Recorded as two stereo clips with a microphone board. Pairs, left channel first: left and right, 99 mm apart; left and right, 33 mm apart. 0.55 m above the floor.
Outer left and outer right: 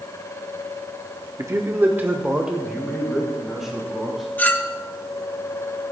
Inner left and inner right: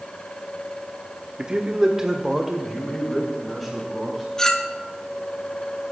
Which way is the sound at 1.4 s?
35° right (ahead or behind).